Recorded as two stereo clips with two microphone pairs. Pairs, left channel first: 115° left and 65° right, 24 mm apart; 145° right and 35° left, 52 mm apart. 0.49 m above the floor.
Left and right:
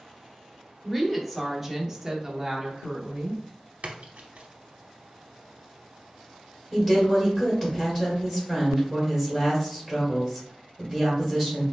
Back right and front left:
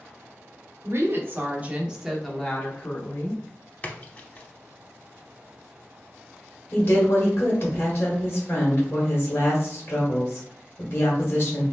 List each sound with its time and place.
0.8 s a woman speaking: 30° left, 1.2 m; by 3.4 s 130° right, 1.1 m
3.8 s a splash: 85° right, 0.7 m
6.7 s a woman speaking: 170° right, 1.6 m